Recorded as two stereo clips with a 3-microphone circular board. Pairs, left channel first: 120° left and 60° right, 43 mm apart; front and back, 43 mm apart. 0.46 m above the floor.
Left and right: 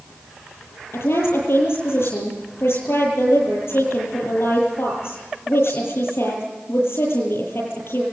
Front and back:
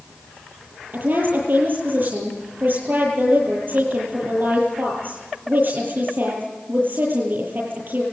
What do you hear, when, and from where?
0.9 s a woman speaking: 140° left, 10 m